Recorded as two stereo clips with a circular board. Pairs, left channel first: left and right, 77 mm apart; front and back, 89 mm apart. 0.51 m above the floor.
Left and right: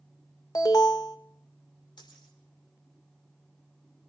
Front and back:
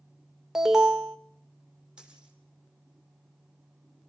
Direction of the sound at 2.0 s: 100° left.